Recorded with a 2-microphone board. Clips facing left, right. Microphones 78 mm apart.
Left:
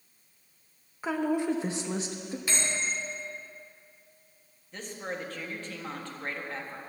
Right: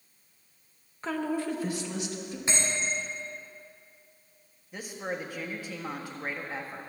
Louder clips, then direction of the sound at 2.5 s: Right 2 dB; 25° right (ahead or behind).